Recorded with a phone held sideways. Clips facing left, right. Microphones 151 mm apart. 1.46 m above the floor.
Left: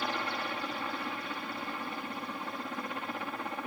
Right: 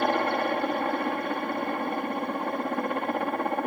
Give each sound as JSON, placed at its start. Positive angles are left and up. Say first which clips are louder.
{"t": 0.0, "sound": "a helicopter", "louder": "right 11 dB", "side_deg": -60}